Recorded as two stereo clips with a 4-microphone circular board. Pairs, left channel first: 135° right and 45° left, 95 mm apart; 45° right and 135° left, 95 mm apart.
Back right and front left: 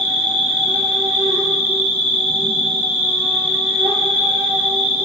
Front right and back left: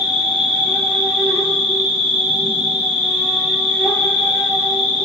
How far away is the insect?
About 0.7 m.